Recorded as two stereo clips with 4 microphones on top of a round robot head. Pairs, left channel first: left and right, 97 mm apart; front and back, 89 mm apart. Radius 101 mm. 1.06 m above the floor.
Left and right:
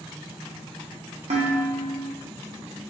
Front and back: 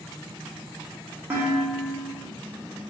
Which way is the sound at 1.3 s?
105° right.